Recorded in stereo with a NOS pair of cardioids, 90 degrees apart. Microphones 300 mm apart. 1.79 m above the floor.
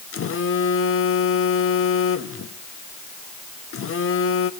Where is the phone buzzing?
50° left, 1.2 m.